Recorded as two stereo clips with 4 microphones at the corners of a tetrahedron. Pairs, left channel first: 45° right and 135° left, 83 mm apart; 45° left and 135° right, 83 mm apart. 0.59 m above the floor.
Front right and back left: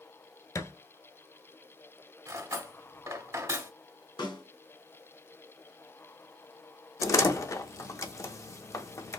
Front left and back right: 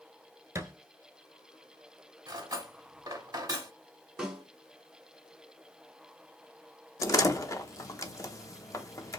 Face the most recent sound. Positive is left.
turn(degrees=0)